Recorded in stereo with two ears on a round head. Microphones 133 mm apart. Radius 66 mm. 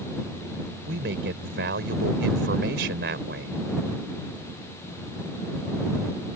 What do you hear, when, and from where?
0.9 s a man speaking: 85° right